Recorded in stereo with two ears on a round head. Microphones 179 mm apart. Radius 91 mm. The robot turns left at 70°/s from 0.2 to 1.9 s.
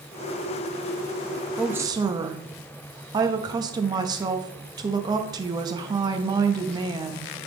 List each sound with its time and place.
1.6 s a woman speaking: centre (ahead or behind), 0.6 m; by 7.3 s 20° right (ahead or behind), 0.6 m